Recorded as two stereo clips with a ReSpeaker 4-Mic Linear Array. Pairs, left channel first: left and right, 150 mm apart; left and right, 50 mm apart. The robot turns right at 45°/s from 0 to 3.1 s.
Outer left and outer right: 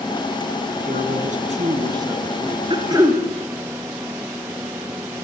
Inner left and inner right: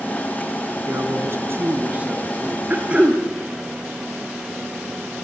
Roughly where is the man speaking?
Right.